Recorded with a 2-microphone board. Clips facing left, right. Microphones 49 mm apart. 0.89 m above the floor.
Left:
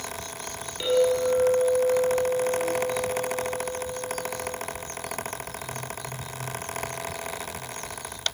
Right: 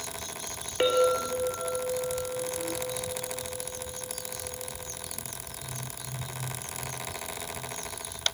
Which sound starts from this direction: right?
A clink, at 0.8 s.